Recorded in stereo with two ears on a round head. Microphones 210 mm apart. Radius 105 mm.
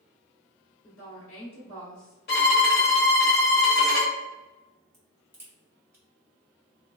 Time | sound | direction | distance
0.8 | a woman speaking | 15° left (ahead or behind) | 1.4 m
2.3 | a violin | 40° left (ahead or behind) | 1.0 m
4.9 | a crack | 10° right (ahead or behind) | 1.0 m